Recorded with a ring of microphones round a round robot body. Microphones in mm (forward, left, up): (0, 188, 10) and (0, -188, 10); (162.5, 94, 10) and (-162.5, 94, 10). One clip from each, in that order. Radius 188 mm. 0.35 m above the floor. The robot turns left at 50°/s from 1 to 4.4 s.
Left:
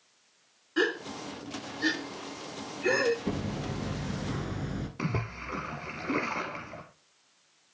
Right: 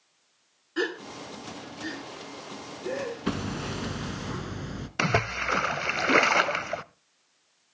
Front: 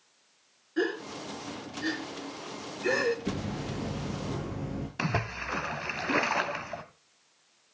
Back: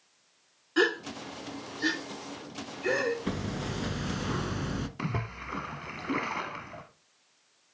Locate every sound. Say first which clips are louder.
0.8 s a gasp: left 2 dB, back 4 dB; straight behind, 2.5 m; by 3.2 s 75° left, 2.5 m
3.3 s hammering: right 3 dB, back 1 dB; 105° right, 1.2 m; by 4.9 s 165° right, 1.2 m
5.0 s a splash: right 12 dB, front 5 dB; 70° right, 0.7 m